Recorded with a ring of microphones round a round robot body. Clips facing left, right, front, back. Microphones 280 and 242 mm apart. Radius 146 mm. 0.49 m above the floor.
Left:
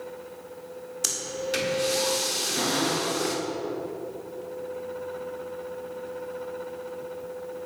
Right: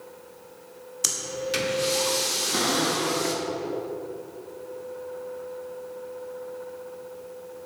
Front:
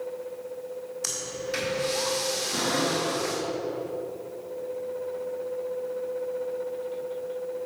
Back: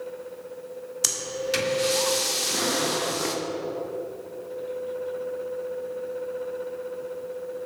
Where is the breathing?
170° right, 1.6 m.